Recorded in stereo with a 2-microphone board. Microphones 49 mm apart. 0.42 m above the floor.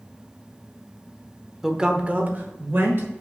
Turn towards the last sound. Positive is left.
turn(degrees=-55)  # may be behind; listen again after turning